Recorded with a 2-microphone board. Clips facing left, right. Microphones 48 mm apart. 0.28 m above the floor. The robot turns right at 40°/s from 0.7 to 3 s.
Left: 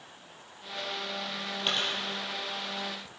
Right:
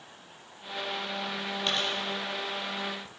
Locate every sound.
1.7 s a dropped coin: 15° left (ahead or behind), 3 m; by 1.9 s 30° left (ahead or behind), 3 m